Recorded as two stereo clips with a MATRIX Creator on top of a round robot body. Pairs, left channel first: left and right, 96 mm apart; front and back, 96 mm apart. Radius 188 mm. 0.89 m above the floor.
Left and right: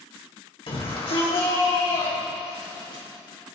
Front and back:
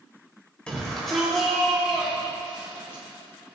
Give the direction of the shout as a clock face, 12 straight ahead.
9 o'clock.